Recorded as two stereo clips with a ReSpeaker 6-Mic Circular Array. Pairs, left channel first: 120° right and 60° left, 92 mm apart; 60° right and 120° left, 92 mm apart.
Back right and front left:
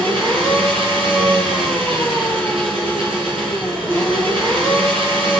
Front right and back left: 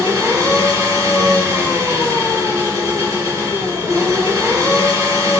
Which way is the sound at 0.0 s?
60° left.